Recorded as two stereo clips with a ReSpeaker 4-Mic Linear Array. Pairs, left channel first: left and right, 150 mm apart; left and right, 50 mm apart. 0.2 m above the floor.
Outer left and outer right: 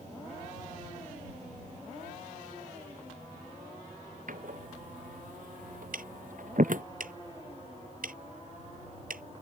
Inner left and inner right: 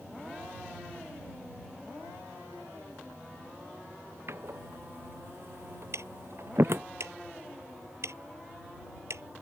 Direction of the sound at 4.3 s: 65° right (ahead or behind).